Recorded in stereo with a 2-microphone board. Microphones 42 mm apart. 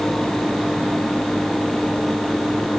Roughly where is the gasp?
No gasp in this recording.